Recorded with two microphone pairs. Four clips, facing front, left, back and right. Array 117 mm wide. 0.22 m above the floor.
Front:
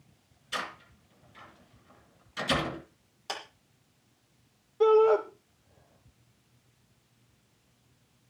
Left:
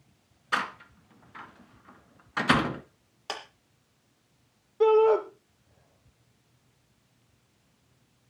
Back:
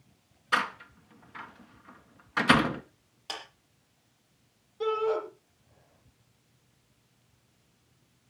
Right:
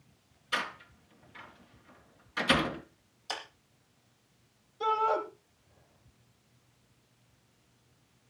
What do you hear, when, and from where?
0.5 s a door slam: 145° left, 2.5 m
3.3 s a clap: 75° left, 7.5 m
4.8 s a shout: 65° left, 5 m